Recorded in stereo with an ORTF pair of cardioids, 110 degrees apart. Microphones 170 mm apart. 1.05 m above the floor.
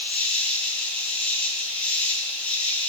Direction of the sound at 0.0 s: 5° left.